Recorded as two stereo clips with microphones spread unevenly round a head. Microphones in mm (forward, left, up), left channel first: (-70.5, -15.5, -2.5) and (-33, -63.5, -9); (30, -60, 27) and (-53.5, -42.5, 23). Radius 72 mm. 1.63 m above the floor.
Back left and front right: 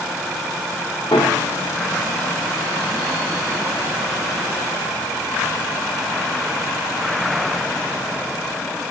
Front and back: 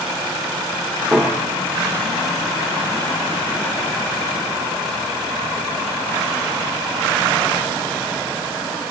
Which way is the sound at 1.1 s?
85° left.